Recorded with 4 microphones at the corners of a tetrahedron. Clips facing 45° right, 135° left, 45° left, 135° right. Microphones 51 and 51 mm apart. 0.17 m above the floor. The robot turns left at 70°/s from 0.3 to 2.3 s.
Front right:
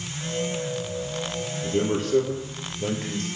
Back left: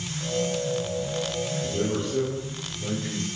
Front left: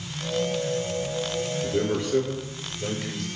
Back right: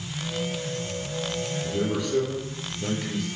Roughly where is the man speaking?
Ahead.